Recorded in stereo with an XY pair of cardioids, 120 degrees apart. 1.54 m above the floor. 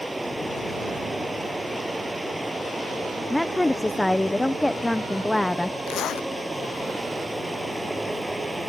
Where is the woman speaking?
10° left.